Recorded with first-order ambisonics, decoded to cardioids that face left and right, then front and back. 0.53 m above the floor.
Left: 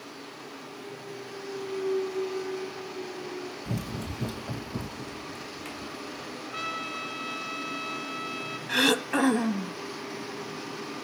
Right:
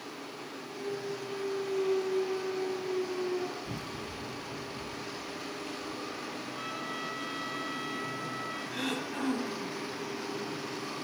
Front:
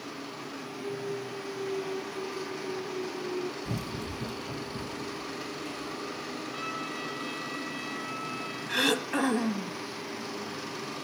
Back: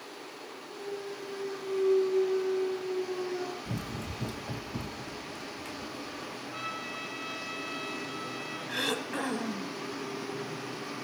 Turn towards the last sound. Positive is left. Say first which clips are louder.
# left 15 dB, front 5 dB
turn(degrees=70)